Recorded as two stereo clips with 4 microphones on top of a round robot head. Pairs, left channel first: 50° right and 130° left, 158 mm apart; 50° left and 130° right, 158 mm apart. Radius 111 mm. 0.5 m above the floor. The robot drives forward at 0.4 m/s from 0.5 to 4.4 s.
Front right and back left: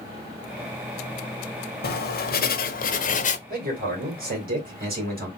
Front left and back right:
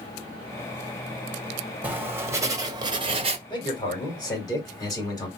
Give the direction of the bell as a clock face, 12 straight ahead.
I don't hear a bell.